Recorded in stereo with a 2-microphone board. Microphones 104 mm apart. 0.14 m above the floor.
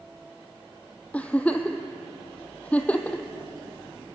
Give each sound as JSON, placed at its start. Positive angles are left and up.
{"t": 1.1, "sound": "a giggle", "side_deg": 15, "distance_m": 1.6}